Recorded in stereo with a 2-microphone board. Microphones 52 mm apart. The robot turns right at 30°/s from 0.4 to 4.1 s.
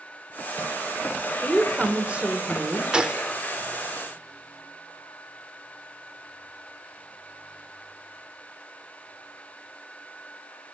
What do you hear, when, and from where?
1.4 s a woman speaking: 170° right, 1.4 m; by 2.8 s 125° right, 1.4 m
2.9 s a gunshot: 15° right (ahead or behind), 0.6 m; by 3.3 s 25° right (ahead or behind), 0.6 m